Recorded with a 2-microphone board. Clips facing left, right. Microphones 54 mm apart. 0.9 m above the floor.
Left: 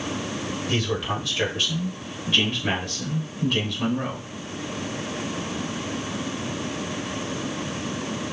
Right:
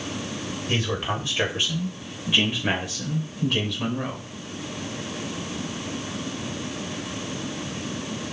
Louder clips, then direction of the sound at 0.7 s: Even; 30° right (ahead or behind).